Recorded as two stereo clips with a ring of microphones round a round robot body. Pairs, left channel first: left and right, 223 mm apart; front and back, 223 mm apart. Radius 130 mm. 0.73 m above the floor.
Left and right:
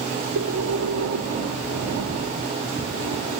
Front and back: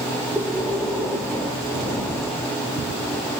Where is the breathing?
85° right, 1.4 m.